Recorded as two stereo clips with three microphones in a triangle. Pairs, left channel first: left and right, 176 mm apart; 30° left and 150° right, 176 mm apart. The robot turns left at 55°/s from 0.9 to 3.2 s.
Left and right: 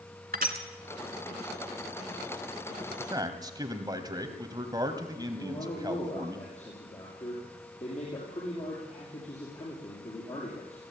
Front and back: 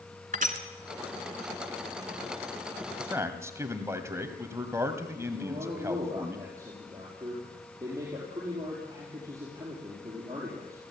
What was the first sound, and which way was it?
Crushing, 115° right.